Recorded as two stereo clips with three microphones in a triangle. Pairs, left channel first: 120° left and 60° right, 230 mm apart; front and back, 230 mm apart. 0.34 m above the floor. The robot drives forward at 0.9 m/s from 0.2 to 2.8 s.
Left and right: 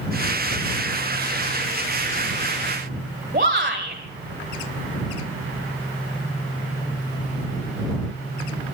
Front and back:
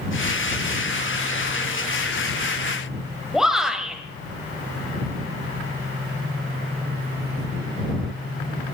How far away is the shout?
About 1.8 m.